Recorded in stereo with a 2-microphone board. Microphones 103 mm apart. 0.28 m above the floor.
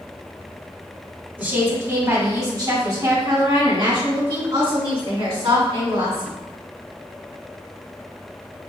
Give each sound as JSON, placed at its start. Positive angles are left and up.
{"t": 1.4, "sound": "a woman speaking", "side_deg": -20, "distance_m": 1.8}